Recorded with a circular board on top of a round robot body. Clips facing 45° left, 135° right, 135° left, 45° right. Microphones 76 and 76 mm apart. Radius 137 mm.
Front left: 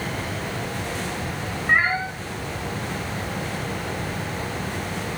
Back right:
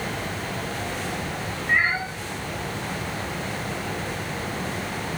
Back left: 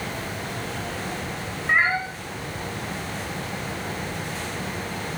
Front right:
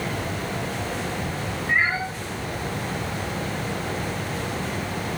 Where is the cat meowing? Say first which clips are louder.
Front left 2 dB, back left 2 dB; 90° left, 1.1 m.